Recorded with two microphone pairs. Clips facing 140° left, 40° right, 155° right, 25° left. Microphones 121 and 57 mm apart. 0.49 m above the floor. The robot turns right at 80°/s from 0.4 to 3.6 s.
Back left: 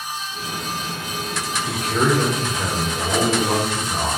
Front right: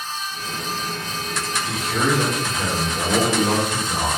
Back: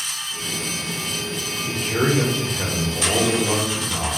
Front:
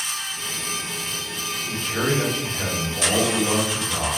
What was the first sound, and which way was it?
A man speaking, 150° left.